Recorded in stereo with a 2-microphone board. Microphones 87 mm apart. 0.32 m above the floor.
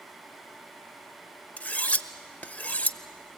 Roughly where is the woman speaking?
I don't hear a woman speaking.